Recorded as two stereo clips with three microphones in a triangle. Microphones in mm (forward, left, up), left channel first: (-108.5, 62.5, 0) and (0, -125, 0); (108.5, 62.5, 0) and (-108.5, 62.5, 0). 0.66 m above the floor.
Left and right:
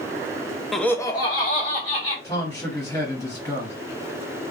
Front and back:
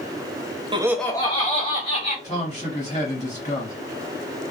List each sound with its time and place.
0.7 s laughter: 150° right, 0.5 m; by 2.1 s 55° left, 1.6 m
2.2 s a man speaking: 50° left, 1.9 m